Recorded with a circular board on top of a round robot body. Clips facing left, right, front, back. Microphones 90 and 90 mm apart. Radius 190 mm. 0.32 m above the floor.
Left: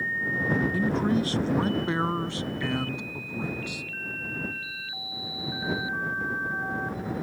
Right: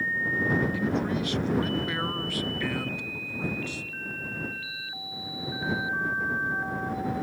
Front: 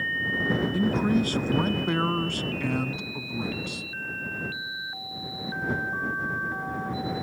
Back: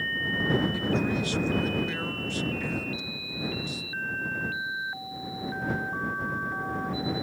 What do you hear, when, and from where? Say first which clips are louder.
0.7 s a man speaking: left 3 dB, front 4 dB; 40° left; by 3.9 s 15° left